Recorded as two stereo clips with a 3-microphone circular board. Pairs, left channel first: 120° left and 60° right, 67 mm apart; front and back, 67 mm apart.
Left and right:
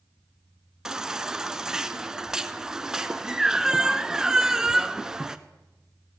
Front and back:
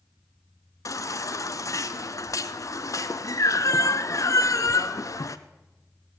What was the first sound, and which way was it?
A baby crying, 20° left.